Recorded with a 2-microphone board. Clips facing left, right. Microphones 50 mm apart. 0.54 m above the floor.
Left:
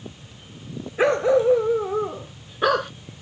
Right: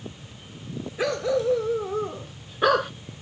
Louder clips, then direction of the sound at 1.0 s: Left 6 dB; 30° left (ahead or behind).